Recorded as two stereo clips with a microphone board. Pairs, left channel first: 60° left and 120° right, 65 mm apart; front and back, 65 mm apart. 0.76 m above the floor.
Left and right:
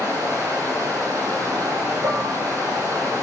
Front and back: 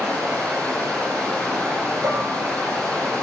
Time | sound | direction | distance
0.0 | running water | 140° right | 3.5 m
2.0 | dishes clattering | 135° right | 1.4 m